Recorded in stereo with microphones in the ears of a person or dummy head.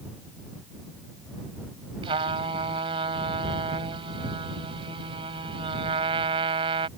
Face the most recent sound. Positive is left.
turn(degrees=-30)  # may be behind; listen again after turning